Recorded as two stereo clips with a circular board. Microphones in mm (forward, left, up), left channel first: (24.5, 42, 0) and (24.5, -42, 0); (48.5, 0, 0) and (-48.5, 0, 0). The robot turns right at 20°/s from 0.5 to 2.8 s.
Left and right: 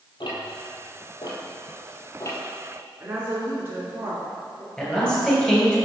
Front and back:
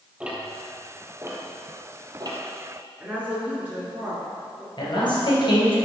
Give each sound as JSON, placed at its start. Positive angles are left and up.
{"t": 0.2, "sound": "ticking", "azimuth_deg": 105, "distance_m": 1.2}
{"t": 3.0, "sound": "a woman speaking", "azimuth_deg": -120, "distance_m": 2.0}
{"t": 4.8, "sound": "a man speaking", "azimuth_deg": 15, "distance_m": 2.0}